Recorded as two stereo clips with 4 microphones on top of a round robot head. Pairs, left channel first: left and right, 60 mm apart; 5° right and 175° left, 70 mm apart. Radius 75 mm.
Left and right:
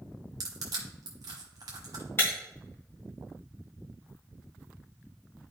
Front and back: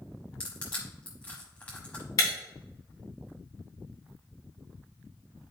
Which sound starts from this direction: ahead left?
Breaking glass, at 2.2 s.